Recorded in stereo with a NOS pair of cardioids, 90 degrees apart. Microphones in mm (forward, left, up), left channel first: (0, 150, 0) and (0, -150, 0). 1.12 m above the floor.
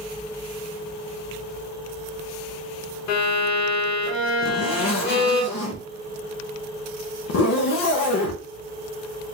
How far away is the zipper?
About 1.1 m.